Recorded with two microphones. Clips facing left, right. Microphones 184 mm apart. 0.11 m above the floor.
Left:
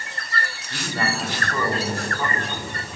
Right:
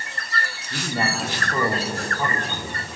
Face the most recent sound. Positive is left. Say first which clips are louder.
# right 1 dB
turn(degrees=-15)  # may be behind; listen again after turning